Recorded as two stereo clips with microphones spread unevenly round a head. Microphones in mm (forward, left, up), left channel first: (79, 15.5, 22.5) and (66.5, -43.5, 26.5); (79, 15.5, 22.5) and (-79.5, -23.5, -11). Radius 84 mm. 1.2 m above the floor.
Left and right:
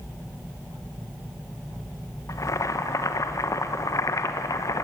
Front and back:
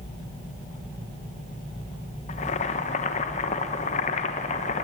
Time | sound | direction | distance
2.3 | boiling | 65° left | 1.2 m